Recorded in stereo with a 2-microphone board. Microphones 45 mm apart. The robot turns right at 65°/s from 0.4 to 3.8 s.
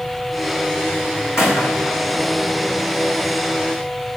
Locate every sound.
1.4 s a gunshot: 80° left, 3.5 m; by 2.8 s 5° right (ahead or behind), 3.5 m